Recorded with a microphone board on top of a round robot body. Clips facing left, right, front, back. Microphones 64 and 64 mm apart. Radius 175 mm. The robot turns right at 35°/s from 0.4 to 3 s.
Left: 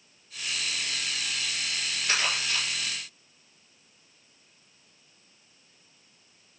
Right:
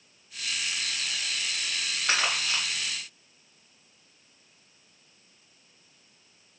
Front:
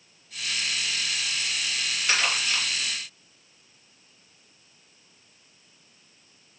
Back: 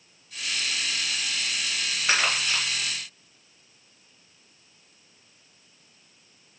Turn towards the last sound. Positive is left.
turn(degrees=-90)